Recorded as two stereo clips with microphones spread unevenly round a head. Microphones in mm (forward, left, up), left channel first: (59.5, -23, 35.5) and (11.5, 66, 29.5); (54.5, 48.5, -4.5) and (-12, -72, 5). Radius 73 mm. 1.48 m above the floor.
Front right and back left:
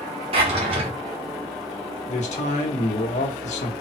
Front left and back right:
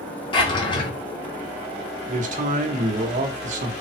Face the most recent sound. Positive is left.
turn(degrees=-85)